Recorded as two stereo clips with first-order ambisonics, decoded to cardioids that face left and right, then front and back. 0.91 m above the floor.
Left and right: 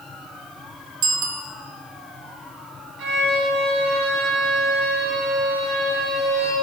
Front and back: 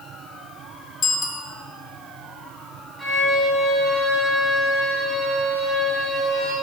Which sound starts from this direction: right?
A violin, at 3.0 s.